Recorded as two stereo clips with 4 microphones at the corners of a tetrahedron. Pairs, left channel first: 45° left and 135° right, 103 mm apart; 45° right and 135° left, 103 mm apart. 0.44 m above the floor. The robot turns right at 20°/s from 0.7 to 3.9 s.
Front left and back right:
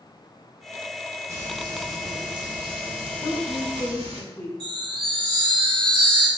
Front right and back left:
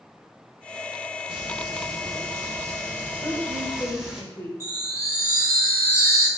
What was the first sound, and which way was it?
Frying, 170° left.